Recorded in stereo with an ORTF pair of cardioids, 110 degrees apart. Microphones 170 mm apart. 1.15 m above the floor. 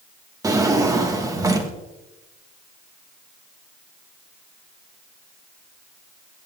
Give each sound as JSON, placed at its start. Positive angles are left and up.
{"t": 0.4, "sound": "a drawer", "azimuth_deg": -20, "distance_m": 1.3}